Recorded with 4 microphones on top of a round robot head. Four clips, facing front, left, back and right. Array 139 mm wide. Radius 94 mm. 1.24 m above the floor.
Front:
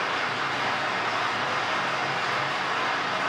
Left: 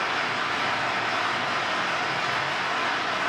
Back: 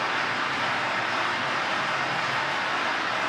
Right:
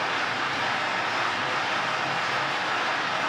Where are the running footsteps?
I don't hear running footsteps.